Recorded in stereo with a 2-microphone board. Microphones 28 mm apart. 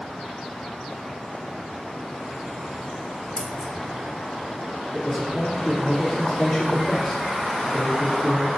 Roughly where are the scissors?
Left.